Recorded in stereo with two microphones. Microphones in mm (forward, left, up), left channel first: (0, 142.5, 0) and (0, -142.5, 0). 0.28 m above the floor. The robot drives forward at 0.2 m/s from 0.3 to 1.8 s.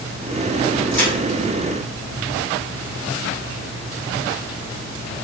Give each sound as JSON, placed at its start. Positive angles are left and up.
{"t": 0.9, "sound": "a crack", "side_deg": 5, "distance_m": 2.0}